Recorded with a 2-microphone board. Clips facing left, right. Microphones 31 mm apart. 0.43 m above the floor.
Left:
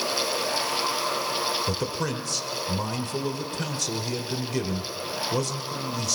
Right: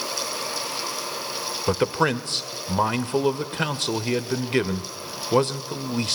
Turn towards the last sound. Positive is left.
turn(degrees=-45)  # may be behind; listen again after turning